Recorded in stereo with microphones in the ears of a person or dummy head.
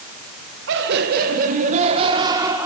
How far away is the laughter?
About 1.6 m.